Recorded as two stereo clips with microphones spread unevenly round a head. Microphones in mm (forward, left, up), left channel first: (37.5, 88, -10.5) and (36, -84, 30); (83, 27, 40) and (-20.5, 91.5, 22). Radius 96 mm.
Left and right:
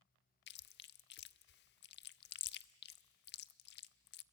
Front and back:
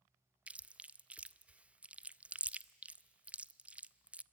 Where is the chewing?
70° left, 0.6 m.